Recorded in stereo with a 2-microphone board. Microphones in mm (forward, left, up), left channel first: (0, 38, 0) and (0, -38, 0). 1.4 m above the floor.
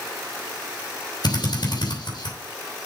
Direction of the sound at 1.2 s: 70° left (ahead or behind).